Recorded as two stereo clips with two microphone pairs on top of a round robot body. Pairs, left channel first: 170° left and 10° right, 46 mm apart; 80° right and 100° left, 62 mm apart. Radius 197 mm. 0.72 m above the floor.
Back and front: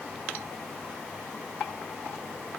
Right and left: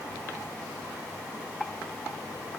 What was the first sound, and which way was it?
Only background noise.